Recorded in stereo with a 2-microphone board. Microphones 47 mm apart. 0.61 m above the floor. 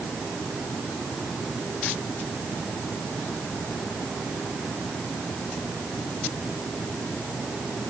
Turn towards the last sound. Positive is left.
No sound to turn to.